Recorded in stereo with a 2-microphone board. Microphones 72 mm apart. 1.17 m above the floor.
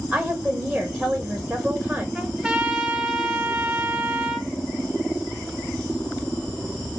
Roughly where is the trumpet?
Centre.